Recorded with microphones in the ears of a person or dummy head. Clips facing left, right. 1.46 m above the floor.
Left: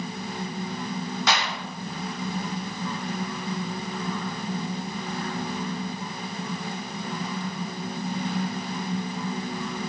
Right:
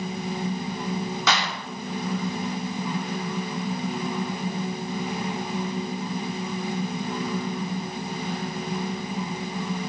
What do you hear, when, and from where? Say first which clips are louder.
1.3 s a clap: even; 75° right (ahead or behind), 3 m